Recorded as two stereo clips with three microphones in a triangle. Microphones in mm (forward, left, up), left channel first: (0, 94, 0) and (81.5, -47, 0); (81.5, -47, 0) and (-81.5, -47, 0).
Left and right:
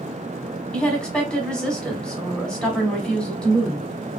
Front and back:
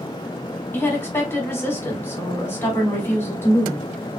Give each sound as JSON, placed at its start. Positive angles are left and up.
{"t": 0.7, "sound": "a woman speaking", "azimuth_deg": 45, "distance_m": 1.0}